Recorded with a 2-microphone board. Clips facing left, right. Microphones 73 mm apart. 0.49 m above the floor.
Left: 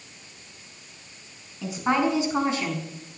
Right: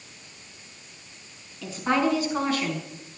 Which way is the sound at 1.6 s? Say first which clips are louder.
Left 1 dB; 20° left (ahead or behind).